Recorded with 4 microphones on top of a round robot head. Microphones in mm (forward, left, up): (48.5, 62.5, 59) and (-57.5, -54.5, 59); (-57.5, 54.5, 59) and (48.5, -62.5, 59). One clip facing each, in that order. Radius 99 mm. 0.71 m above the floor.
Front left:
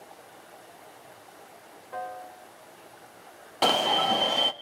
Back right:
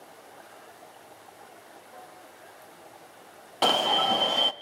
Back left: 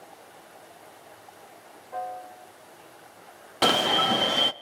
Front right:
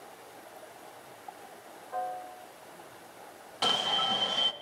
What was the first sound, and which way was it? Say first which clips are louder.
A piano: front left 14 dB, back left 1 dB; 50° left.